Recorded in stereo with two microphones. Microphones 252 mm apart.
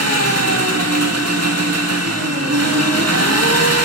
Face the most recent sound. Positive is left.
turn(degrees=-80)